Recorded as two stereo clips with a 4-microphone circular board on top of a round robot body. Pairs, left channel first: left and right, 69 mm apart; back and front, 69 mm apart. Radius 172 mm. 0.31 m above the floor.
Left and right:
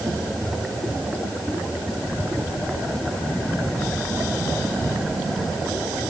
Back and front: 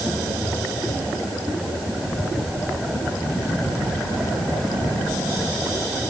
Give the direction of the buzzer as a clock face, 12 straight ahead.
I don't hear a buzzer.